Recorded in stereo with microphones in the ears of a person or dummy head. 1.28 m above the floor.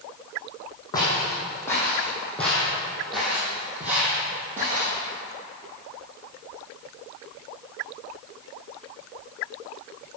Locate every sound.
0.9 s footsteps: 20° left (ahead or behind), 3 m; by 4.9 s 20° right (ahead or behind), 2.5 m